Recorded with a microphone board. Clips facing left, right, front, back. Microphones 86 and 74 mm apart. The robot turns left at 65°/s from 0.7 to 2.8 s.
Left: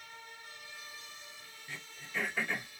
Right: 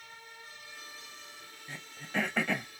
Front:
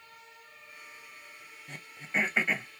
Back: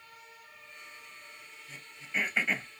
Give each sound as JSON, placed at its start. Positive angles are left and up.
{"t": 1.7, "sound": "throat clearing", "azimuth_deg": -25, "distance_m": 1.1}